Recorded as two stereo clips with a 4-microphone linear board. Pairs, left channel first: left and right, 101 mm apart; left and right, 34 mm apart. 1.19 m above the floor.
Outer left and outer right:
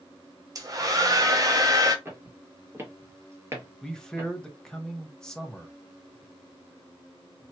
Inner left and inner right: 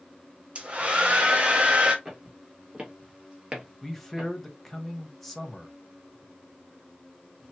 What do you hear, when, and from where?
0.6 s a hair dryer: 35° right (ahead or behind), 0.8 m
2.0 s footsteps: 25° right (ahead or behind), 1.5 m
3.8 s a man speaking: 5° left (ahead or behind), 0.8 m